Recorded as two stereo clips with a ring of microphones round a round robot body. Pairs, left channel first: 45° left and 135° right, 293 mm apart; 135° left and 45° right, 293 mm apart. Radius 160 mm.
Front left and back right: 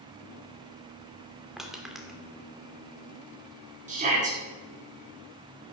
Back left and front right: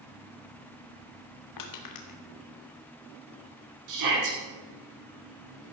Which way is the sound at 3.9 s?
70° right.